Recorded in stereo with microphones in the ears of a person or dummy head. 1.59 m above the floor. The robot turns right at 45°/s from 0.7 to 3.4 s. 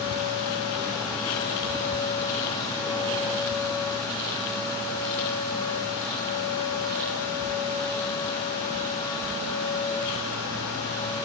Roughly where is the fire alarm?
No fire alarm in this recording.